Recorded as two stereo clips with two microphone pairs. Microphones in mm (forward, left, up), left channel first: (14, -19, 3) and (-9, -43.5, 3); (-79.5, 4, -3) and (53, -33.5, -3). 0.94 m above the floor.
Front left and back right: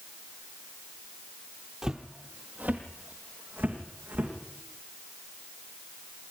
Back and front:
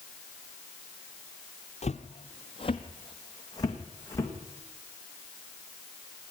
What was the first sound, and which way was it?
Footsteps, 160° left.